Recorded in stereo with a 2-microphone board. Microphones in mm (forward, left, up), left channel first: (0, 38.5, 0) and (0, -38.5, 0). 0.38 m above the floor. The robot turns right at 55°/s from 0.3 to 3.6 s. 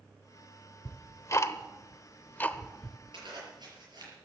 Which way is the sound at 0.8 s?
30° left (ahead or behind).